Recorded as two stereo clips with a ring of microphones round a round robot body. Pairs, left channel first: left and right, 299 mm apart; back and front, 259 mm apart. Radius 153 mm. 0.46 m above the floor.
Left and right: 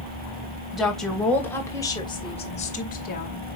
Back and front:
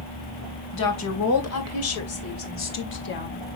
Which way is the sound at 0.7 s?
Straight behind.